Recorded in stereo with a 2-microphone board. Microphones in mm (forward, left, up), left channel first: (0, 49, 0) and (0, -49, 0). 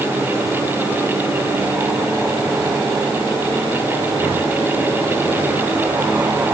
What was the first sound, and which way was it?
Only background noise.